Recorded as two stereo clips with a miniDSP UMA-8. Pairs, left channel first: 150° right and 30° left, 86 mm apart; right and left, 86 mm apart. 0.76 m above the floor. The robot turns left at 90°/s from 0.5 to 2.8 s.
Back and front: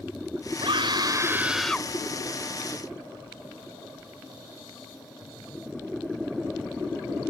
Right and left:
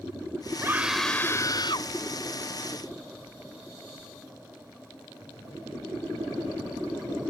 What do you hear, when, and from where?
0.6 s a scream: 35° left; by 1.9 s 85° right